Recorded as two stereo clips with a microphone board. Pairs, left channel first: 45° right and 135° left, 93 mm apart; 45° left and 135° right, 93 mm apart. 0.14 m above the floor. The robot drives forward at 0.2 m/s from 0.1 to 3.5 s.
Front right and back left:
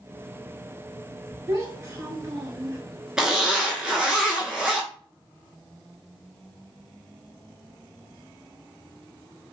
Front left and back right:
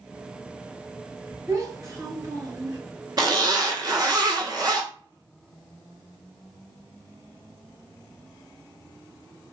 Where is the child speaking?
170° right, 1.5 m; by 2.8 s 175° right, 1.7 m.